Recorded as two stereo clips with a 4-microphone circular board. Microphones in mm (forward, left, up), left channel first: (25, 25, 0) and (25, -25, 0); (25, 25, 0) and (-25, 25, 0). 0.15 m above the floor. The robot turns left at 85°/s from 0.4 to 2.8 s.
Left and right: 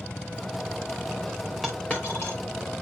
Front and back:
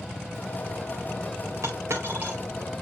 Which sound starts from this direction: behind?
A dropped coin, at 1.6 s.